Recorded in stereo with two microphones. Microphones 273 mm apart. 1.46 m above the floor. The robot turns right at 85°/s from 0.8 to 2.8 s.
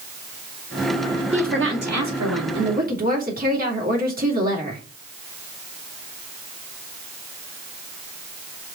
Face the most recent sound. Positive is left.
turn(degrees=-35)